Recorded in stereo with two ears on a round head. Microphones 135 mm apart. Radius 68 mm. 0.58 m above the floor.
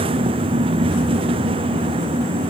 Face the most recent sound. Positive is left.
No sound to turn to.